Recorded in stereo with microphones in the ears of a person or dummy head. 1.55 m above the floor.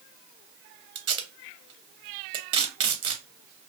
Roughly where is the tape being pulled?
Right.